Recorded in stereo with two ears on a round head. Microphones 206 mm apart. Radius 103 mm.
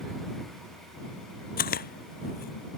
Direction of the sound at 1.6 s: 40° left (ahead or behind).